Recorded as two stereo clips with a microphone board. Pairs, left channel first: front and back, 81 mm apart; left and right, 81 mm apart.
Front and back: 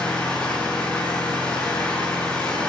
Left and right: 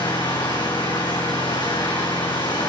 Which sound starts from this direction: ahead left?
An engine running, at 0.0 s.